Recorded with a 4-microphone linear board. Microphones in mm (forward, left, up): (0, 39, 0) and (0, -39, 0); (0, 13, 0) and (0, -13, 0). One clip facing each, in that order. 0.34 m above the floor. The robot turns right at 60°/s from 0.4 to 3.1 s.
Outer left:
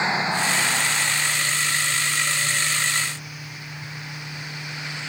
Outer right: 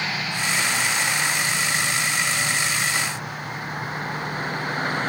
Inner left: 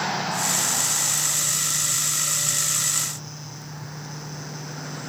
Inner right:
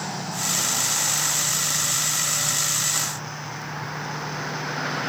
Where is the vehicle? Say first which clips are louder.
Outer left 4 dB, inner left 4 dB; 155° left; by 5.1 s 45° right.